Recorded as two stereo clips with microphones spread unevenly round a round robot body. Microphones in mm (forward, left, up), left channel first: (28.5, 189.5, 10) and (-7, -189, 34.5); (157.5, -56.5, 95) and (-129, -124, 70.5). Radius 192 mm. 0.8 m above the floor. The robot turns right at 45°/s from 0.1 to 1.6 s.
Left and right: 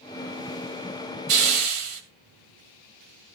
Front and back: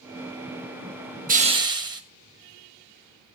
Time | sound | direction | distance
1.3 | a hiss | 105° right | 2.5 m